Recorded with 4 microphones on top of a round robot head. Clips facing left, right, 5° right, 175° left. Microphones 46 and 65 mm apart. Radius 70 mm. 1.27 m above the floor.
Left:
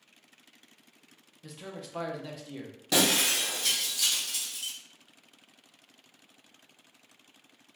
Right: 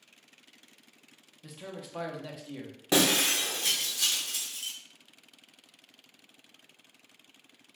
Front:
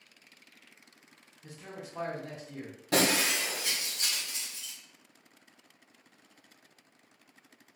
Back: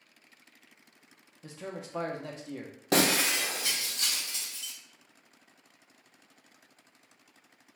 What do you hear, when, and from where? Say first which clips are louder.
1.4 s a man speaking: even, back 4 dB; straight behind, 0.6 m
2.9 s breaking glass: right 1 dB, back 1 dB; 145° right, 0.7 m